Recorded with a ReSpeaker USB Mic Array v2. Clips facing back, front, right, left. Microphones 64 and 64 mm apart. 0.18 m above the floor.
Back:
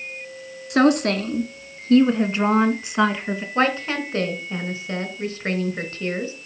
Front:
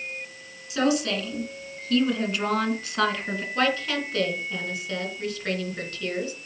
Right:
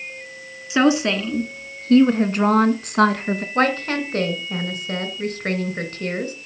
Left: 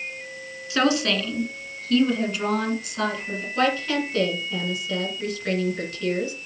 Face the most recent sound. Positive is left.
turn(degrees=-125)